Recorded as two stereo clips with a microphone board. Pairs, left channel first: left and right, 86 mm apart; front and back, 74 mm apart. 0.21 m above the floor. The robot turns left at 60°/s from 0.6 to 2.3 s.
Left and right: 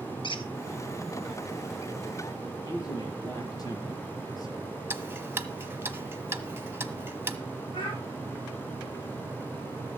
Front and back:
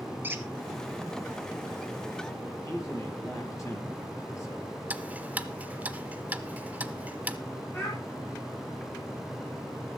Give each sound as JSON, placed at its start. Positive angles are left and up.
{"t": 0.2, "sound": "a squeak", "azimuth_deg": 115, "distance_m": 1.3}
{"t": 2.6, "sound": "a man speaking", "azimuth_deg": 45, "distance_m": 5.0}
{"t": 4.9, "sound": "ticking", "azimuth_deg": -130, "distance_m": 1.0}
{"t": 7.7, "sound": "a child speaking", "azimuth_deg": 55, "distance_m": 5.0}